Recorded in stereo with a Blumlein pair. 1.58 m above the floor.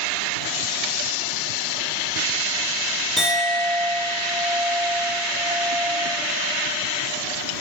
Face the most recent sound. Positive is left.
turn(degrees=-10)